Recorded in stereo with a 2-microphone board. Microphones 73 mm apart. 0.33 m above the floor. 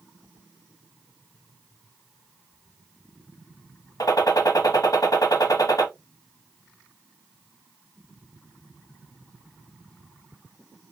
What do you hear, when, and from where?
4.0 s a gunshot: 60° left (ahead or behind), 0.7 m